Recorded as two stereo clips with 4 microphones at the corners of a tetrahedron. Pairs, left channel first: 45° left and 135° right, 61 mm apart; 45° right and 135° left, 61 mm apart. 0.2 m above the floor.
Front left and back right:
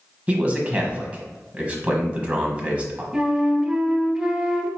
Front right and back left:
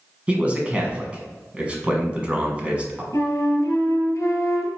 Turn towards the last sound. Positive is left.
turn(degrees=-65)